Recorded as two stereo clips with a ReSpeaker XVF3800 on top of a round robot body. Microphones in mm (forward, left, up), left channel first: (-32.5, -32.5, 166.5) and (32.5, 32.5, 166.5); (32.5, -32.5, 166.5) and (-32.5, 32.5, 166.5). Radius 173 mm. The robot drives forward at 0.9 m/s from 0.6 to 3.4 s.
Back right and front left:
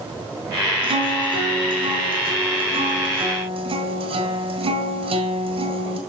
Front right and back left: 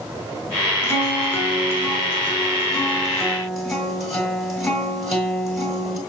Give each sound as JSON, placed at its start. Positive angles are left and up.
{"t": 0.8, "sound": "a guitar", "azimuth_deg": 20, "distance_m": 4.5}